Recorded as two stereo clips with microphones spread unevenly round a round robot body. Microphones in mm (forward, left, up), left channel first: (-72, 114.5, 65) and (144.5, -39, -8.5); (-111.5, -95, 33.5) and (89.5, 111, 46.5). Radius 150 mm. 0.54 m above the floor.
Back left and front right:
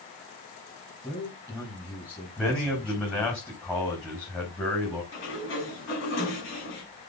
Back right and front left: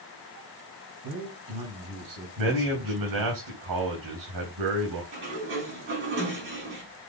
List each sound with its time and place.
1.0 s a man speaking: 55° left, 4.5 m
2.4 s a man speaking: 55° left, 4.5 m
5.1 s a sliding door: 100° left, 5.5 m